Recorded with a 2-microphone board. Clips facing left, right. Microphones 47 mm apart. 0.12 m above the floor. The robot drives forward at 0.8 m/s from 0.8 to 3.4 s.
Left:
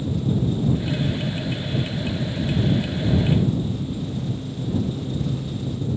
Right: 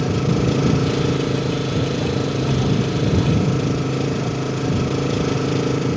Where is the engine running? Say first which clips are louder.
Right 5 dB; 75° right (ahead or behind).